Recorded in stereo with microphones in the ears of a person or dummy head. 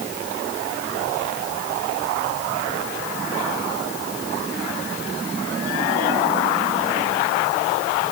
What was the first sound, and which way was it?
Only background noise.